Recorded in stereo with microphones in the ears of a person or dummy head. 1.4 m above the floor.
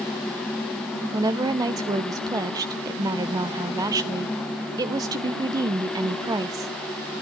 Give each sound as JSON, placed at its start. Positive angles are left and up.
{"t": 1.1, "sound": "a woman speaking", "side_deg": -15, "distance_m": 0.6}